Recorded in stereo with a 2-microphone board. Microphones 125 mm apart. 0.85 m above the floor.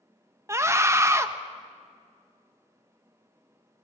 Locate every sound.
0.5 s a scream: 20° right (ahead or behind), 0.9 m